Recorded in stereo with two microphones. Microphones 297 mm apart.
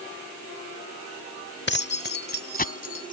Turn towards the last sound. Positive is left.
turn(degrees=30)  # may be behind; listen again after turning